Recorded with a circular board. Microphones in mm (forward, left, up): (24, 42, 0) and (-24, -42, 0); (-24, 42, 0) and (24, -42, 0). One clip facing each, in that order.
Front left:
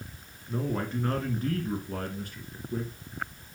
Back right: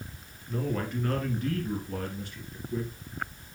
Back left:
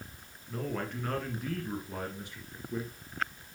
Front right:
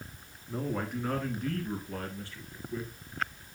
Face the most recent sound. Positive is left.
turn(degrees=70)